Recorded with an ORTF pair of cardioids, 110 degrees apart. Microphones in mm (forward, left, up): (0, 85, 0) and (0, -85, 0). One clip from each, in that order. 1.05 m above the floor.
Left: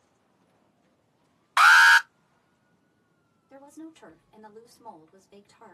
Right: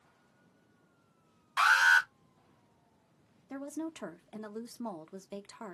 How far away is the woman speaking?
About 1.0 m.